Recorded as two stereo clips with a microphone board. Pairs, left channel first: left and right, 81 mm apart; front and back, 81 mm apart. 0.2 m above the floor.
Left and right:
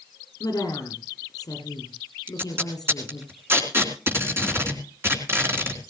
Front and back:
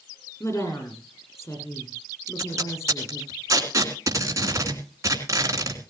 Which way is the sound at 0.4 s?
50° left.